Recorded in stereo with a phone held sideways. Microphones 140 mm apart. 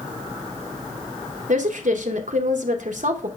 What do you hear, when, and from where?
1.5 s a woman speaking: 65° right (ahead or behind), 0.8 m